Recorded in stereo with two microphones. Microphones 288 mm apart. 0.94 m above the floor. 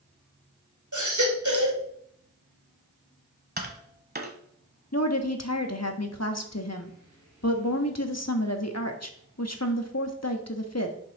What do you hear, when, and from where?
0.9 s a baby crying: 70° right (ahead or behind), 3 m
3.6 s tapping: 30° right (ahead or behind), 1.3 m
4.9 s a woman speaking: 55° left (ahead or behind), 1.5 m